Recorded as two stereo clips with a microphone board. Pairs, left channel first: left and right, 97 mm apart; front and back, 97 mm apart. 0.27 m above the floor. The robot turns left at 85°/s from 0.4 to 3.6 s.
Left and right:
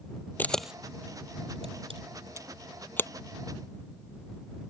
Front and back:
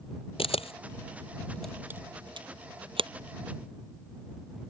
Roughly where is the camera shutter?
Ahead.